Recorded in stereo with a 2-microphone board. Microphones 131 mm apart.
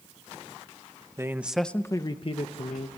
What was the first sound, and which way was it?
A man speaking, 20° right (ahead or behind).